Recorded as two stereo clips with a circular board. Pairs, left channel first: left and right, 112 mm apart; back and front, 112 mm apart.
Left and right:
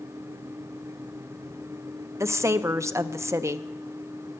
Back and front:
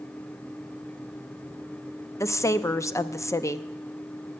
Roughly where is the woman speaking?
Behind right.